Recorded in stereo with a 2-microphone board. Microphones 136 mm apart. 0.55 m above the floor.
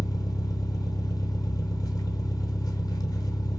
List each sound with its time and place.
0.0 s an engine running: 25° left (ahead or behind), 0.7 m